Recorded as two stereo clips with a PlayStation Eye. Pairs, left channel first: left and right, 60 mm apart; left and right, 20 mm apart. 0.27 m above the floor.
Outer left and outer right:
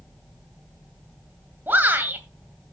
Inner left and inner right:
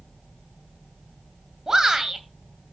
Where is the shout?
30° right (ahead or behind), 1.9 m.